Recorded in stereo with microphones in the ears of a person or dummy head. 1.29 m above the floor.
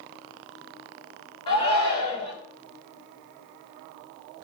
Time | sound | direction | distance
1.5 | a shout | 35° left (ahead or behind) | 4 m